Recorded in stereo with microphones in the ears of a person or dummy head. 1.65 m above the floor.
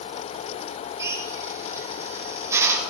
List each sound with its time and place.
1.0 s a drill: 10° right (ahead or behind), 6.5 m